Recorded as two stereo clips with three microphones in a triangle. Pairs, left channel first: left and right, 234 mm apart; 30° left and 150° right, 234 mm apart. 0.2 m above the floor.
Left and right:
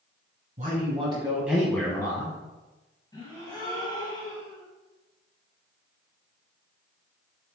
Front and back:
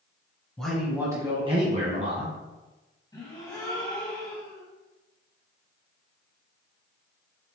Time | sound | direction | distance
0.6 | a man speaking | 55° right | 1.3 m
3.1 | a gasp | 65° left | 1.3 m